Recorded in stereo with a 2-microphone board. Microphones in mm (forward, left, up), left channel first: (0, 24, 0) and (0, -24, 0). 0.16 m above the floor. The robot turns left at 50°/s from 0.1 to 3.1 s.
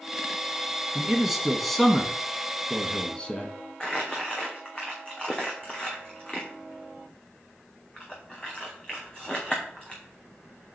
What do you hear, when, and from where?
0.9 s a man speaking: 10° right (ahead or behind), 1.1 m; by 3.5 s 20° left (ahead or behind), 1.1 m
3.8 s crumpling: 20° left (ahead or behind), 2.5 m